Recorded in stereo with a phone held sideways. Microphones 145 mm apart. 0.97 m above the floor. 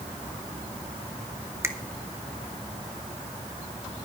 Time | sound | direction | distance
1.6 | a finger snap | 20° right (ahead or behind) | 1.0 m